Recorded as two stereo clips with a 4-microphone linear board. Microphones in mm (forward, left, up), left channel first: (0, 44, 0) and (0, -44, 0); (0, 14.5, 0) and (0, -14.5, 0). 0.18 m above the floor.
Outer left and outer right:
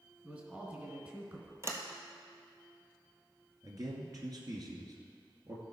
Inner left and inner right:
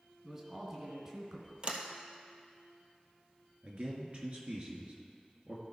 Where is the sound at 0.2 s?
15° right (ahead or behind), 2.5 m.